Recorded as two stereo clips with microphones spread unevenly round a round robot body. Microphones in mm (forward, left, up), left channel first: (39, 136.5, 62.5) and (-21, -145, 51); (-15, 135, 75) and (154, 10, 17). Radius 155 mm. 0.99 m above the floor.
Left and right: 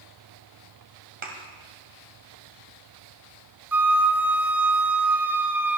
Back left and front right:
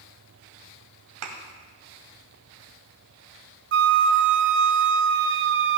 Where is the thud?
40° right, 1.9 m.